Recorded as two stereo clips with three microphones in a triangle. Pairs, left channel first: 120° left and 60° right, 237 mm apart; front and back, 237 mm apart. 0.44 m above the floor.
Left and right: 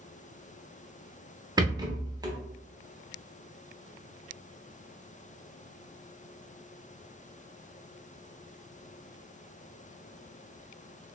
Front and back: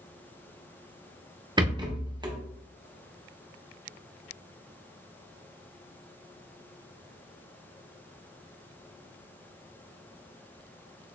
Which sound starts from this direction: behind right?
A rattle, at 1.6 s.